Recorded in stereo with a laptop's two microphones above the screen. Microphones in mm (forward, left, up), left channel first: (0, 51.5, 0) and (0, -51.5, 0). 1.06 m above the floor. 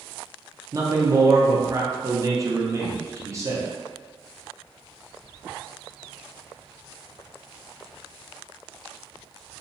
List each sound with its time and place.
0.7 s a man speaking: 30° right (ahead or behind), 0.6 m